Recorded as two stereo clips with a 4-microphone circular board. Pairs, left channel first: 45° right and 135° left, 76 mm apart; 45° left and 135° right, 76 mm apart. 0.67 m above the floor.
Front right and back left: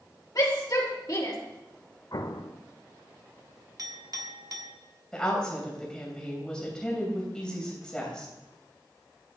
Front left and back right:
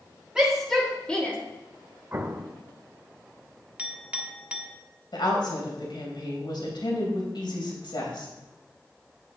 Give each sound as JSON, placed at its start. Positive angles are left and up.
{"t": 0.3, "sound": "a shout", "azimuth_deg": -60, "distance_m": 1.8}
{"t": 2.1, "sound": "an explosion", "azimuth_deg": -75, "distance_m": 0.7}
{"t": 3.8, "sound": "a clink", "azimuth_deg": 155, "distance_m": 1.1}
{"t": 5.1, "sound": "a woman speaking", "azimuth_deg": 35, "distance_m": 3.0}